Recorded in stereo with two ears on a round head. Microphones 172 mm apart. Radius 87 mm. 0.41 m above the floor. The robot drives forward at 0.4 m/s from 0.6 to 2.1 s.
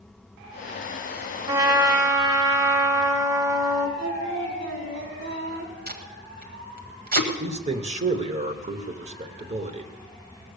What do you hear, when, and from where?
1.5 s a trumpet: 25° right (ahead or behind), 1.2 m; by 3.9 s 20° right (ahead or behind), 1.4 m
4.0 s singing: 70° right (ahead or behind), 3.5 m
5.9 s tape being pulled: 50° right (ahead or behind), 1.6 m
7.4 s a man speaking: 35° right (ahead or behind), 1.1 m